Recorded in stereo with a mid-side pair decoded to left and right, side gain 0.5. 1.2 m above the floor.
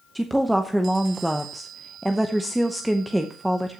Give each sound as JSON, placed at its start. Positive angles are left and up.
{"t": 0.1, "sound": "a woman speaking", "azimuth_deg": -5, "distance_m": 0.8}